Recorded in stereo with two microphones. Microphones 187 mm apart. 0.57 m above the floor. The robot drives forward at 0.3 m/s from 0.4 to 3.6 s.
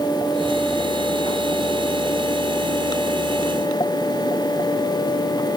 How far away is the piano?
I don't hear a piano.